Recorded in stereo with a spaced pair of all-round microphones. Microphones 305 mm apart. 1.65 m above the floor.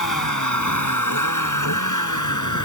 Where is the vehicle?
80° left; by 2.7 s 75° left (ahead or behind).